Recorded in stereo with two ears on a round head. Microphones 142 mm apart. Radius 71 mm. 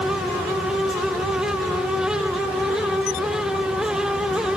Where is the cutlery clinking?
I don't hear cutlery clinking.